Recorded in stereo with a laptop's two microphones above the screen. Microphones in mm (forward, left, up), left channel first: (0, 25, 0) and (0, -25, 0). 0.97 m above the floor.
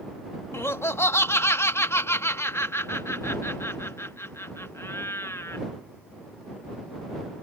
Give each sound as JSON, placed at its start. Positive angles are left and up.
{"t": 0.5, "sound": "laughter", "side_deg": 60}